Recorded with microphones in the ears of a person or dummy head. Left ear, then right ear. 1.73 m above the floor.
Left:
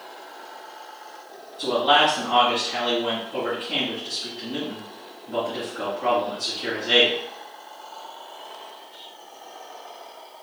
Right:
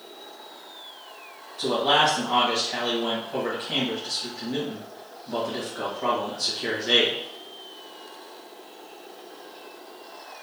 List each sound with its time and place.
1.6 s a man speaking: 80° right, 1.9 m